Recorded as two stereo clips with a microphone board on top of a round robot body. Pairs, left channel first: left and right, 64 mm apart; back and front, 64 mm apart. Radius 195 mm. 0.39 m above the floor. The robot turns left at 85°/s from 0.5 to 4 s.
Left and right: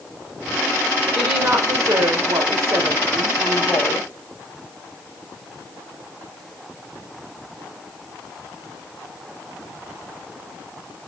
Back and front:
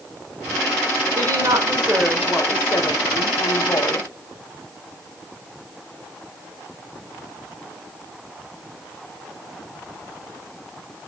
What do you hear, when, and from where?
1.1 s a woman speaking: 5° left, 2 m; by 4.1 s 120° left, 2 m